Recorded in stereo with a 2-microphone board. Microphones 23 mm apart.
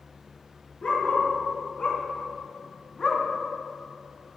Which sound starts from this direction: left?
A dog barking, at 0.8 s.